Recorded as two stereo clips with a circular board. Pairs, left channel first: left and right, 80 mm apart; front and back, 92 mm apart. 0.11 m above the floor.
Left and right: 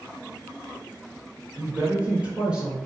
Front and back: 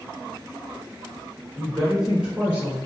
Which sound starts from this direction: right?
A woman speaking, at 1.6 s.